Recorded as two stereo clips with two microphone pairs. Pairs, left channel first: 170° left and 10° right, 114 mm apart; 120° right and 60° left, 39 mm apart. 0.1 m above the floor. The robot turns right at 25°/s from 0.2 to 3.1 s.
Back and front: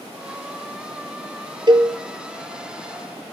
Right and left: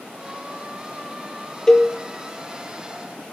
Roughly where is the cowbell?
Ahead right.